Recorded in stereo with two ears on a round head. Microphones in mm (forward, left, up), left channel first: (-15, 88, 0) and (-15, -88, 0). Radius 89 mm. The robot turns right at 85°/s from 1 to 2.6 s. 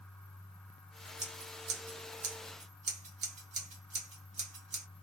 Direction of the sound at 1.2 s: 20° right (ahead or behind).